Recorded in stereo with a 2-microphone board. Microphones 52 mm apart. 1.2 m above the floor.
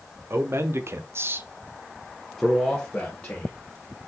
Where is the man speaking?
55° right (ahead or behind), 0.9 m; by 3.5 s 25° left (ahead or behind), 1.2 m.